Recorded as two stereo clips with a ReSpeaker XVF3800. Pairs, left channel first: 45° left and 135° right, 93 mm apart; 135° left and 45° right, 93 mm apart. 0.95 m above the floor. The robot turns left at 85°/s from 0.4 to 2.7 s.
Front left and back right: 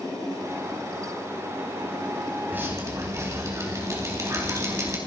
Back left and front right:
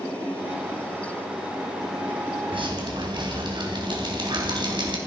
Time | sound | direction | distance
2.5 | dripping | 65° right | 3.5 m